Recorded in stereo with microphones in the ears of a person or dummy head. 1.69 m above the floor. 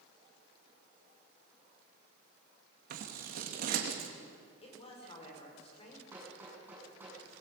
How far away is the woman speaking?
About 5.5 m.